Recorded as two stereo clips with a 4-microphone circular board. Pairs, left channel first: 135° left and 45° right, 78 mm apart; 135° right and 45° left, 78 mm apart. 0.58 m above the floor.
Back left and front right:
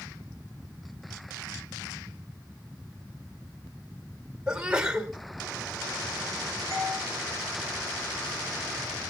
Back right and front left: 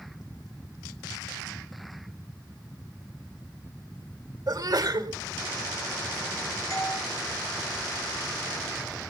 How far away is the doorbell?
About 9.5 m.